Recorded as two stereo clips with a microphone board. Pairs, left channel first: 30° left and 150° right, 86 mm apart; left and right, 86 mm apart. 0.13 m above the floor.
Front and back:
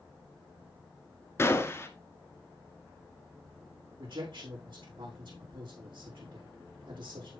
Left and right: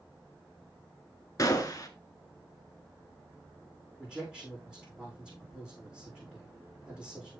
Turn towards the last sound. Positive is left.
turn(degrees=-170)